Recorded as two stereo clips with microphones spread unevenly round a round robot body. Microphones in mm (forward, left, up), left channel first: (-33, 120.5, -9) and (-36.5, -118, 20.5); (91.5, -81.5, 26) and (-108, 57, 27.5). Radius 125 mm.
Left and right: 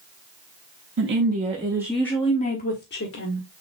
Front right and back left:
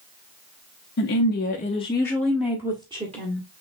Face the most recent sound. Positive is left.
turn(degrees=85)